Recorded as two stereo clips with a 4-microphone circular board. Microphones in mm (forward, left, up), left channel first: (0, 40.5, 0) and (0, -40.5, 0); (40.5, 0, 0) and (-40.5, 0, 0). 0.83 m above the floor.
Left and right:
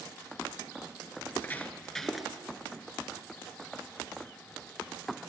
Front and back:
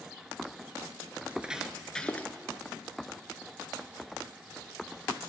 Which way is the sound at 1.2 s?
125° left.